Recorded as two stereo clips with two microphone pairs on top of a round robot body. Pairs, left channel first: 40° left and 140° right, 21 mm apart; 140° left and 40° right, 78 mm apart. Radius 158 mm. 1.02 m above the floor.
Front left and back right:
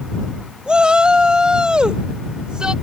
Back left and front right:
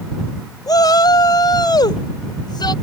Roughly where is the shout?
Behind.